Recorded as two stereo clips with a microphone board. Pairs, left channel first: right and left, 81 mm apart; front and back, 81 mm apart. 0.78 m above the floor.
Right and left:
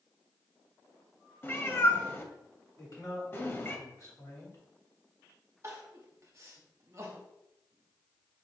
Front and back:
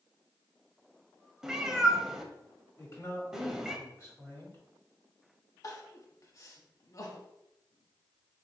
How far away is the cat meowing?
About 0.6 m.